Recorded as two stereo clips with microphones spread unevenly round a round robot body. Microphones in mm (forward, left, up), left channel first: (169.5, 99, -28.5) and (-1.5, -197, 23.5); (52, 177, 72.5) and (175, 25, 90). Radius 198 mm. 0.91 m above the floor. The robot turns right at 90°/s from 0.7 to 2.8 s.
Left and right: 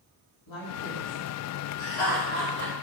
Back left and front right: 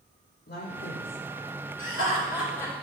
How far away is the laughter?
About 3.5 m.